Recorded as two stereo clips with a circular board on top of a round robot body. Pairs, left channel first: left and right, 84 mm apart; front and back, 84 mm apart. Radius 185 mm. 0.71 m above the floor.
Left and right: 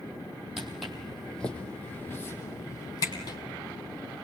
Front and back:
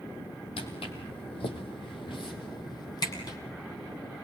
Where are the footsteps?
5° right, 2 m; by 3.4 s 45° left, 2 m.